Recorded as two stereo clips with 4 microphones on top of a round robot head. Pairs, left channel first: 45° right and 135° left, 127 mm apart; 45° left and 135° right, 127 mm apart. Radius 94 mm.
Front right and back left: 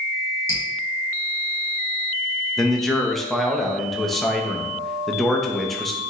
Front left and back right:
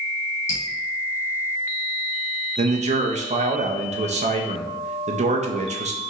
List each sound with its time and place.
0.5 s dripping: 25° left, 1.3 m
2.6 s a man speaking: 135° right, 0.7 m